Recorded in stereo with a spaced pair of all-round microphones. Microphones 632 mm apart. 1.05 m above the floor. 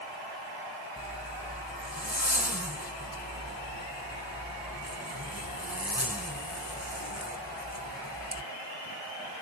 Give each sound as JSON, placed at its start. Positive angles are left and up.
{"t": 1.0, "sound": "a zipper", "side_deg": 15, "distance_m": 3.0}